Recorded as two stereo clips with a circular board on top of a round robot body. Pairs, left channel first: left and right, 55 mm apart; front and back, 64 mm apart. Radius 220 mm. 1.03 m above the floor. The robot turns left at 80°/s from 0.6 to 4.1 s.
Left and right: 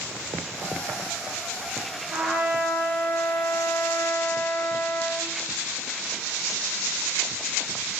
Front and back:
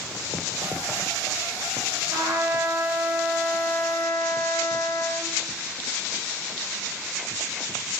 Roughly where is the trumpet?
Behind right.